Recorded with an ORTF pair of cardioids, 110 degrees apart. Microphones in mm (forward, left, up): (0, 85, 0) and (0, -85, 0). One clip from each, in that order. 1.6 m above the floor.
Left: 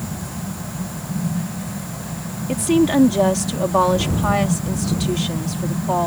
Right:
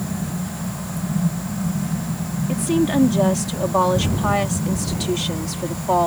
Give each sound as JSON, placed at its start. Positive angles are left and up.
{"t": 2.5, "sound": "a woman speaking", "azimuth_deg": 25}